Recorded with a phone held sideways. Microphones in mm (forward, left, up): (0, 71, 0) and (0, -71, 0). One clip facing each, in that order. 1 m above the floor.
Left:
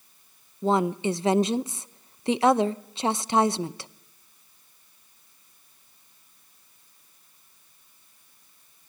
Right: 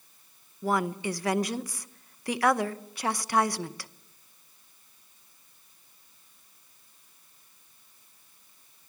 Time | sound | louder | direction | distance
0.6 | a woman speaking | left 5 dB | 25° left (ahead or behind) | 0.6 m